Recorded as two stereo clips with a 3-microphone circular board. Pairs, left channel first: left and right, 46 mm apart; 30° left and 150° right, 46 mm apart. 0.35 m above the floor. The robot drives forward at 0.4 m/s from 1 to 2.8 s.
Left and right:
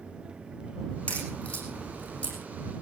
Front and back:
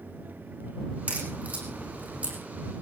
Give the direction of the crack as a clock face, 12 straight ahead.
7 o'clock.